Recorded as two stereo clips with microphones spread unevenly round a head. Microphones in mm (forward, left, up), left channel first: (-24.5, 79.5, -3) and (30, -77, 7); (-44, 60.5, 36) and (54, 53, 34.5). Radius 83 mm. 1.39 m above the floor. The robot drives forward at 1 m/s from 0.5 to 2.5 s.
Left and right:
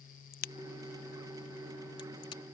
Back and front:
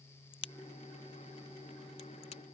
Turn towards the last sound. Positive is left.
turn(degrees=175)